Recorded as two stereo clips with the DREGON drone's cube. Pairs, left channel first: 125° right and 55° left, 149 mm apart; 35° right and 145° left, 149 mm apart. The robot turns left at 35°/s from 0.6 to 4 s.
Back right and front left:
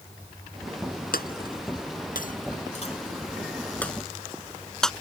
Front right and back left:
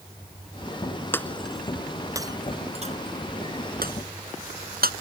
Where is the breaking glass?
110° right; by 4.9 s 150° left.